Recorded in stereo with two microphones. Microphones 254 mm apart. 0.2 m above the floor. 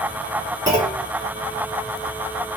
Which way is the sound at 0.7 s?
10° right (ahead or behind).